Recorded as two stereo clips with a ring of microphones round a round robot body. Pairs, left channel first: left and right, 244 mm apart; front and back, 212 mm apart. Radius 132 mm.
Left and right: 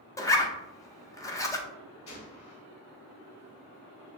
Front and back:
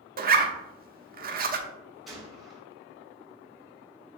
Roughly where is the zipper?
Behind.